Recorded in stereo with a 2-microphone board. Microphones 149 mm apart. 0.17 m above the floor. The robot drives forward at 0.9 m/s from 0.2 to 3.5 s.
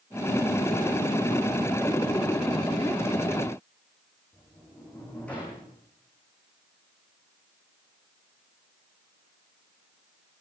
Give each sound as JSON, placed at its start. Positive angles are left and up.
{"t": 4.3, "sound": "a sliding door", "side_deg": 10, "distance_m": 5.0}